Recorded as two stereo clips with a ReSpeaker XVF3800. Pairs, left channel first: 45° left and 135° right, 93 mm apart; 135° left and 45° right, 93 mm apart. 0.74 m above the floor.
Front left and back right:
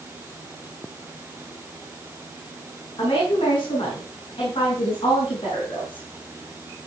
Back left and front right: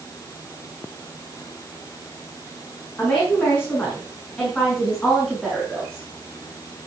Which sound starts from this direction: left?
A woman speaking, at 3.0 s.